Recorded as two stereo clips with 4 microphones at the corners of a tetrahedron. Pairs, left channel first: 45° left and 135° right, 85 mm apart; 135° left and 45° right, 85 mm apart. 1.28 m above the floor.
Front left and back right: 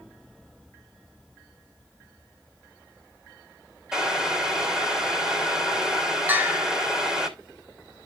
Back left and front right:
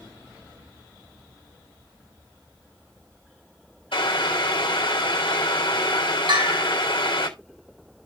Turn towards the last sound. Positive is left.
turn(degrees=-70)